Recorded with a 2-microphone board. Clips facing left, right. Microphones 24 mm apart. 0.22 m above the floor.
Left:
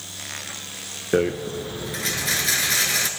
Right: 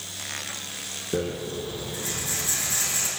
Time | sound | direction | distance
1.1 | a rattle | 65° left (ahead or behind) | 0.9 m